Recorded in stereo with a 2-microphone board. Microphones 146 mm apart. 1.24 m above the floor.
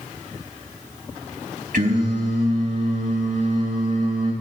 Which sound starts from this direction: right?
Singing, at 1.7 s.